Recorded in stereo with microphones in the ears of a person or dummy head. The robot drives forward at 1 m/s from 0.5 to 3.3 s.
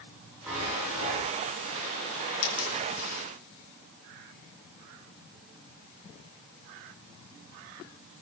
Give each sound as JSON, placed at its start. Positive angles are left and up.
{"t": 0.5, "sound": "a chime", "side_deg": -15, "distance_m": 7.0}
{"t": 2.4, "sound": "a dropped coin", "side_deg": 75, "distance_m": 5.5}